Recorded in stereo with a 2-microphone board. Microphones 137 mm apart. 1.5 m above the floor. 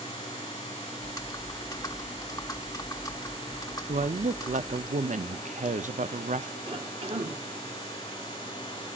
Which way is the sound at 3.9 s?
65° right (ahead or behind).